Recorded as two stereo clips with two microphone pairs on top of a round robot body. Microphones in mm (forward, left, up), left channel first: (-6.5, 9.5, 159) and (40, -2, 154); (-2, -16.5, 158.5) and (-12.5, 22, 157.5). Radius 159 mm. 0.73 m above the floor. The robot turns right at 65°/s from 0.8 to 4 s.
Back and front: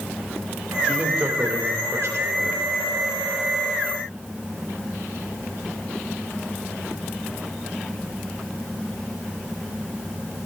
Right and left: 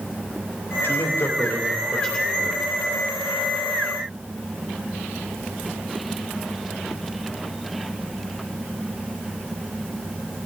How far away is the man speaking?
About 3 m.